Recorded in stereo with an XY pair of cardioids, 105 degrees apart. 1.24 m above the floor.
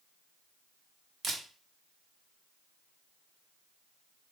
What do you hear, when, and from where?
1.2 s a camera shutter: 55° right, 1.0 m